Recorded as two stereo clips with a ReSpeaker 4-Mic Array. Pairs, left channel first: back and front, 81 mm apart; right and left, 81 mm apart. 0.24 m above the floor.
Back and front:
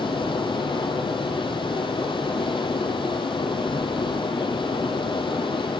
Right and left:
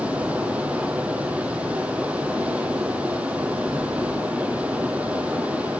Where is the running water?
165° left, 1.6 m.